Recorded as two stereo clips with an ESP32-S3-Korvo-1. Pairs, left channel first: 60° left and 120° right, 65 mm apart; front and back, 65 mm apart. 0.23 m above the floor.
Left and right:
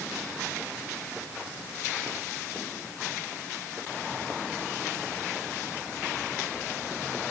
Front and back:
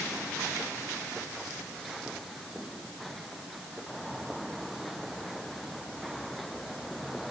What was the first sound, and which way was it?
Only background noise.